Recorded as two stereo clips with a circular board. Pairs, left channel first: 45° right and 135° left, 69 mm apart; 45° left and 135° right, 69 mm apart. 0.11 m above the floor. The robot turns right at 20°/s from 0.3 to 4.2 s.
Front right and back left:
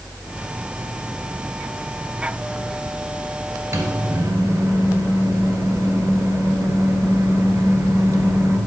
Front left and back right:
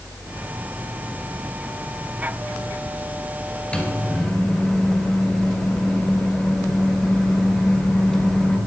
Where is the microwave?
110° left, 1.1 m; by 8.6 s 120° left, 1.1 m.